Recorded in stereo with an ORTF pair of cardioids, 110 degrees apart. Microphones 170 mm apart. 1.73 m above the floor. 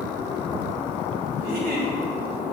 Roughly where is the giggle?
Ahead right.